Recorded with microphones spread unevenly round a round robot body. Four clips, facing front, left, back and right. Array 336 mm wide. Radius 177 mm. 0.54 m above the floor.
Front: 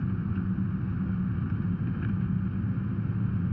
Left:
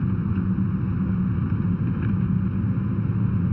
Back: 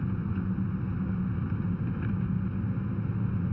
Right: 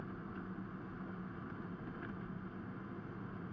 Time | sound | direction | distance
0.0 | an engine running | 85° left | ?